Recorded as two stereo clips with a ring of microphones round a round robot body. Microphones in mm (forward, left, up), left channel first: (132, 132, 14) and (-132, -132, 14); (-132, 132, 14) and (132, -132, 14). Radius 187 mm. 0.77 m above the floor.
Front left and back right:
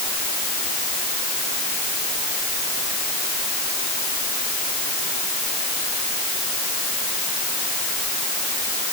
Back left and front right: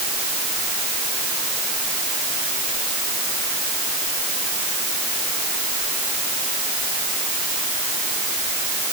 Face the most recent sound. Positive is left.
No sound to turn to.